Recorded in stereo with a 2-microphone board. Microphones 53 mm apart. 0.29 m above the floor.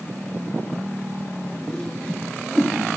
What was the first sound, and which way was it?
A whoosh, 15° left (ahead or behind).